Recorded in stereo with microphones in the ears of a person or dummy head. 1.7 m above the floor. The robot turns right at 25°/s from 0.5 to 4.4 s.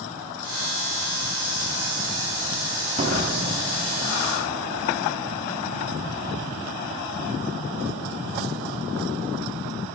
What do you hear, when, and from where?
3.0 s a door slam: 35° right (ahead or behind), 3 m; by 4.0 s 55° right (ahead or behind), 3 m